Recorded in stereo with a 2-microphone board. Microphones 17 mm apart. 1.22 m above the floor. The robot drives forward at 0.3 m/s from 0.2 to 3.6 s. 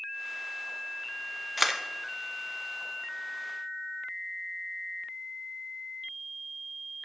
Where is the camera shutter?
5° right (ahead or behind), 0.7 m.